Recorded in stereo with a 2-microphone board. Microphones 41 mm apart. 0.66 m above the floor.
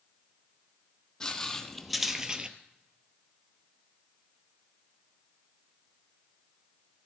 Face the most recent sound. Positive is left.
turn(degrees=-25)  # may be behind; listen again after turning